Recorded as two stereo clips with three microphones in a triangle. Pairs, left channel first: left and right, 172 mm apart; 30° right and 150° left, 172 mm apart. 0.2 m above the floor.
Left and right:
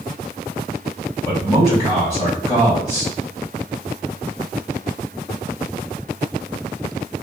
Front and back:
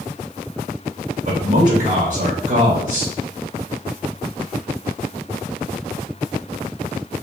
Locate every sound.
1.2 s a man speaking: 160° left, 1.9 m